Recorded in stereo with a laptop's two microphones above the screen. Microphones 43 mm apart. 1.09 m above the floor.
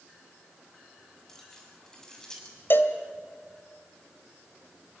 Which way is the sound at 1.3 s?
10° left (ahead or behind).